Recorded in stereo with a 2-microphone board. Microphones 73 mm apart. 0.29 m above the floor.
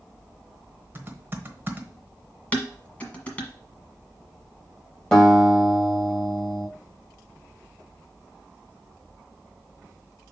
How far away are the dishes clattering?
About 1.5 m.